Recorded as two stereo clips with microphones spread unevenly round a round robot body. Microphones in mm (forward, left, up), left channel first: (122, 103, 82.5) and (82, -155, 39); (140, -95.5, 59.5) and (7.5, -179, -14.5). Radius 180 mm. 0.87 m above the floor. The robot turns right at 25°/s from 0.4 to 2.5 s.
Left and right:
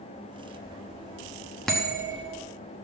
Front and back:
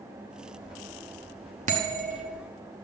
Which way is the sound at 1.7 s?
170° left.